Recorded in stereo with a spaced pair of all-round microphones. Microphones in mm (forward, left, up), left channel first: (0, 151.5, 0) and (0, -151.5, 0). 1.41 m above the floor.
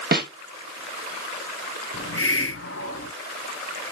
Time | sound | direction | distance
0.1 | a snare drum | 30° right (ahead or behind) | 0.8 m
1.9 | a hiss | 45° left (ahead or behind) | 0.8 m